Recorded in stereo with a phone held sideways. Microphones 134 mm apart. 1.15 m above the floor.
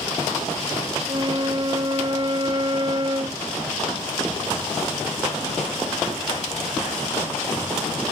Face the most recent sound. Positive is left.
turn(degrees=-40)  # may be behind; listen again after turning